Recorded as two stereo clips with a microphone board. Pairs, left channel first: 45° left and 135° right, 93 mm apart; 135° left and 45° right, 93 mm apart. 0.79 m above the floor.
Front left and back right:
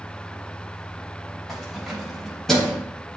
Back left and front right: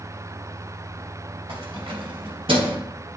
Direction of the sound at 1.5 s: 45° right.